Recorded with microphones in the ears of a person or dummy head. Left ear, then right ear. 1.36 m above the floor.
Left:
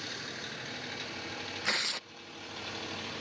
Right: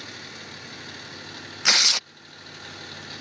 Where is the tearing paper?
40° right (ahead or behind).